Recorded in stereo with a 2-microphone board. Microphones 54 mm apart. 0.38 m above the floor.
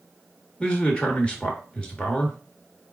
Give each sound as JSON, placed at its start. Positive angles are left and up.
{"t": 0.6, "sound": "a man speaking", "side_deg": 20, "distance_m": 0.9}